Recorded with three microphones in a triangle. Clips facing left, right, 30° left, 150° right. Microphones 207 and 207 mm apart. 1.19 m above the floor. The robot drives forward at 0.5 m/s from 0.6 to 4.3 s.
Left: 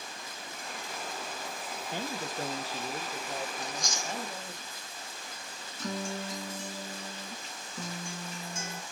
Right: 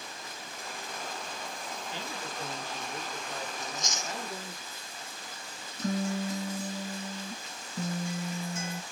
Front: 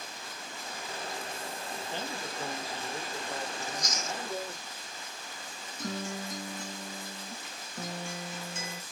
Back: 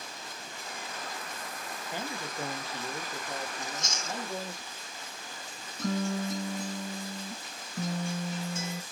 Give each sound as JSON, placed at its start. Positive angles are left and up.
{"t": 1.9, "sound": "a man speaking", "azimuth_deg": 130, "distance_m": 0.8}
{"t": 3.6, "sound": "chewing", "azimuth_deg": -100, "distance_m": 0.6}
{"t": 5.8, "sound": "a guitar", "azimuth_deg": -135, "distance_m": 2.0}